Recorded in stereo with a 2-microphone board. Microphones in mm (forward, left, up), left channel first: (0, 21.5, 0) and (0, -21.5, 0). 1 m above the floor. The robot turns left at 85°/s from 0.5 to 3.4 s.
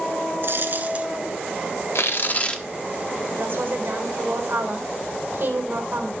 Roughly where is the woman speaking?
Right.